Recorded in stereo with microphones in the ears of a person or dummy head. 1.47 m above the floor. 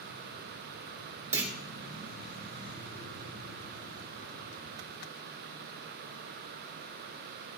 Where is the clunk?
15° right (ahead or behind), 3 m.